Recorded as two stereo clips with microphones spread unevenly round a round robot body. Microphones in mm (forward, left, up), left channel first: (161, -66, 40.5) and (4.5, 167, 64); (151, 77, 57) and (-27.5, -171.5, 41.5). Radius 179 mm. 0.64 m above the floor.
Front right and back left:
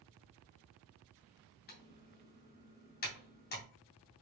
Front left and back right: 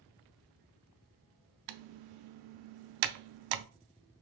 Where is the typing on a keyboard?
120° right, 0.5 m.